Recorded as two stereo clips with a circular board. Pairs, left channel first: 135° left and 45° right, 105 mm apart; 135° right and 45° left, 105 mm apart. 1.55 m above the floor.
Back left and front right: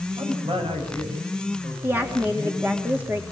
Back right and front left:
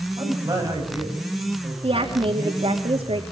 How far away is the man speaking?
About 9 m.